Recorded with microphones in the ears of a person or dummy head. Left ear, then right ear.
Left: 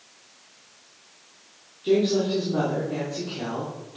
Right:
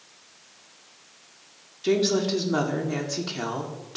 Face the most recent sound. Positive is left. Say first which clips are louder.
# left 1 dB
turn(degrees=-60)  # may be behind; listen again after turning